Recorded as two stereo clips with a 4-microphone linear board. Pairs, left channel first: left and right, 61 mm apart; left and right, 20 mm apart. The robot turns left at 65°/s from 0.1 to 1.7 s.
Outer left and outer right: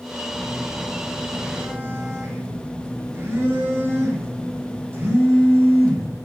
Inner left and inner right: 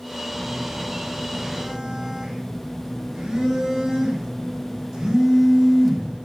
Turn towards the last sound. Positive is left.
turn(degrees=-50)